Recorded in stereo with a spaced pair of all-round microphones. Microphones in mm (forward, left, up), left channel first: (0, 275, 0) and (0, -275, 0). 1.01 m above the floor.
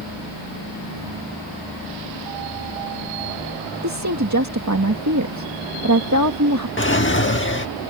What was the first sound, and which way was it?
A woman speaking, 30° right (ahead or behind).